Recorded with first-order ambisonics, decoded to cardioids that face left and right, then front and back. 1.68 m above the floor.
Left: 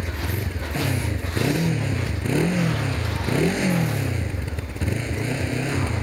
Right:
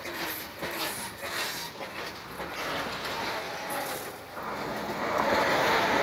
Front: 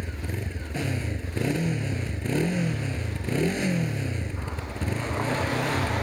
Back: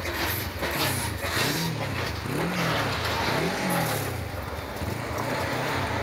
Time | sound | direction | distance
0.0 | a motorcycle | 75° left | ?